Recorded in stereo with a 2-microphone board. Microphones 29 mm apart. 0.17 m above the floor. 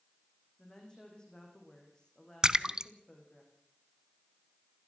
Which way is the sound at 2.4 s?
25° right (ahead or behind).